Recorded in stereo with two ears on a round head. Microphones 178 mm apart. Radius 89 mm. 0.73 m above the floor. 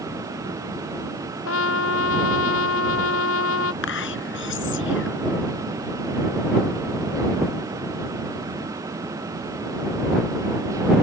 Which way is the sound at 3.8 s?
65° left (ahead or behind).